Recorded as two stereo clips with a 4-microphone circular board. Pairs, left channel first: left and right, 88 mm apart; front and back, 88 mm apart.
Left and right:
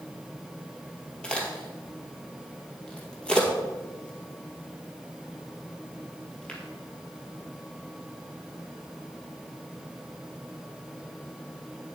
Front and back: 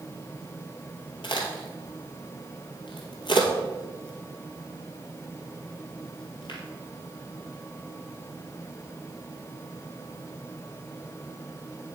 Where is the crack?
10° left, 2.0 m.